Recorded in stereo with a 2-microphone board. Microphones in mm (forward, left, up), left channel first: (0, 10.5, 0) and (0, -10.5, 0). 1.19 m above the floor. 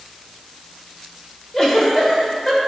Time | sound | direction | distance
1.5 | a giggle | 15° left (ahead or behind) | 1.9 m